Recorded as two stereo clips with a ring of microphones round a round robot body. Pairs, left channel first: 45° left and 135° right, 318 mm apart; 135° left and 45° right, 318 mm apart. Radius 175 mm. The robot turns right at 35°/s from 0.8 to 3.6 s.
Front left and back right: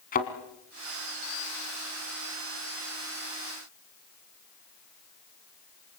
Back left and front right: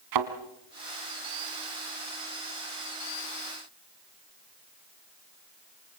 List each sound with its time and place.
0.1 s a thud: 20° right, 2 m